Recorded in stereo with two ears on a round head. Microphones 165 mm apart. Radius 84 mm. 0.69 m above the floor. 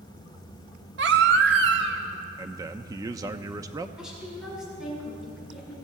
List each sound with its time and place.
1.0 s a baby crying: 65° right (ahead or behind), 1.1 m
2.4 s a man speaking: 20° right (ahead or behind), 0.5 m
4.0 s a woman speaking: 5° right (ahead or behind), 7 m